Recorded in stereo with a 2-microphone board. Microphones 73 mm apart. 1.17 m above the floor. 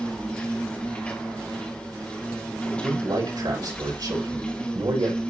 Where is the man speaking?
70° right (ahead or behind), 5.5 m.